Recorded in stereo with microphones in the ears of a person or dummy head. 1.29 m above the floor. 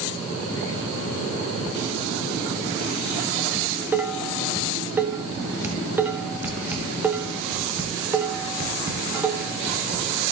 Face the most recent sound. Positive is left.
turn(degrees=-10)  # may be behind; listen again after turning